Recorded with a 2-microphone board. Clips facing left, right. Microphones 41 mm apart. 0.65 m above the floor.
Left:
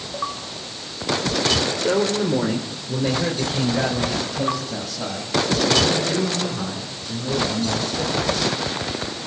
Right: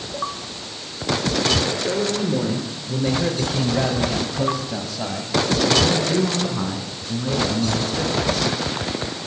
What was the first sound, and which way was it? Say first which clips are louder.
A man speaking: left 2 dB; 45° left (ahead or behind).